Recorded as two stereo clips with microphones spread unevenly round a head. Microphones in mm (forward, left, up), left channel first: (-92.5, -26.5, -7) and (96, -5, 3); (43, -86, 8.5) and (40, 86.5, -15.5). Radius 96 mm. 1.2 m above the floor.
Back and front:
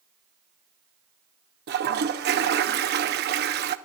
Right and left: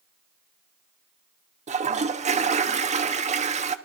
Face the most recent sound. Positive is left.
turn(degrees=40)